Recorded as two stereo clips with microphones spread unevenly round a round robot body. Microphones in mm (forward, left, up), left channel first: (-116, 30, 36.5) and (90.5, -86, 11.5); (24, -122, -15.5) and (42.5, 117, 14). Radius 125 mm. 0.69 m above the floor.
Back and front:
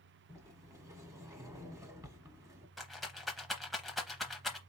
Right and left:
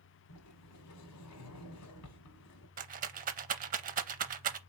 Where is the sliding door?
105° right, 1.1 m.